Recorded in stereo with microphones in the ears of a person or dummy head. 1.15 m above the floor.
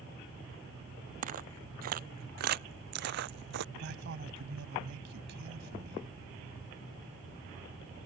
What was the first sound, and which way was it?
Footsteps, 45° right (ahead or behind).